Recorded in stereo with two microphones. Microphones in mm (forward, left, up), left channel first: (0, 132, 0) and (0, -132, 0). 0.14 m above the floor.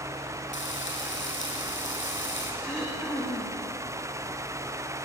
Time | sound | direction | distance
0.5 | frying | 45° left (ahead or behind) | 6 m
2.6 | throat clearing | 5° left (ahead or behind) | 6 m